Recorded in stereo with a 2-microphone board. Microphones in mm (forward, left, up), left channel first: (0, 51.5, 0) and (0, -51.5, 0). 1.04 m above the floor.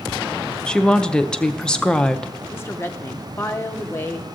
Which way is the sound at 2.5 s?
25° left (ahead or behind).